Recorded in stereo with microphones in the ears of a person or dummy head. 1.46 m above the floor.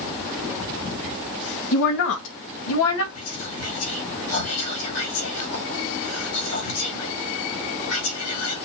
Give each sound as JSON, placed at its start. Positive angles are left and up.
{"t": 1.7, "sound": "a woman speaking", "side_deg": 60, "distance_m": 1.8}
{"t": 3.1, "sound": "whispering", "side_deg": 85, "distance_m": 3.0}